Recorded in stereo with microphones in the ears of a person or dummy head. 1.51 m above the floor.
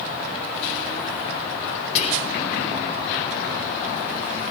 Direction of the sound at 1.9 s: 50° left (ahead or behind).